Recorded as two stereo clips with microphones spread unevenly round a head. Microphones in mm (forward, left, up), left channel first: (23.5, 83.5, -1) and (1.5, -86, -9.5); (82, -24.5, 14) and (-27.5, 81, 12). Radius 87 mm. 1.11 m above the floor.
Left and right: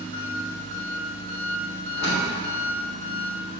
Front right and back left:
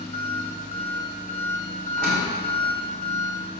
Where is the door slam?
115° left, 2.5 m.